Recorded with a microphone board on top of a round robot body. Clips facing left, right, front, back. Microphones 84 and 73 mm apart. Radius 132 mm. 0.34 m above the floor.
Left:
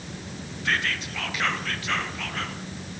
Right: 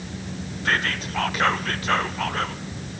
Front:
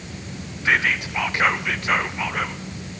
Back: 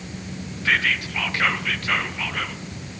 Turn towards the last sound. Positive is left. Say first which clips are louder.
# right 3 dB, front 2 dB
turn(degrees=-60)